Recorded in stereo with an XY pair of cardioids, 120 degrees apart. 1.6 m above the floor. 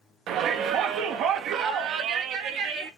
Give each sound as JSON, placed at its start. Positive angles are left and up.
{"t": 0.3, "sound": "a shout", "azimuth_deg": -65, "distance_m": 1.8}